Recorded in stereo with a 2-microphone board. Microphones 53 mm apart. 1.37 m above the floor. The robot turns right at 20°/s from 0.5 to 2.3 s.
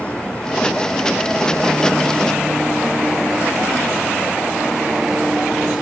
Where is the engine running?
155° left; by 5.8 s 170° right.